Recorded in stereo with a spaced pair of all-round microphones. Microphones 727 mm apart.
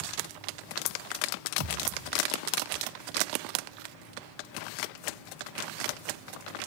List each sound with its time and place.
1.6 s a thud: 35° right (ahead or behind), 5 m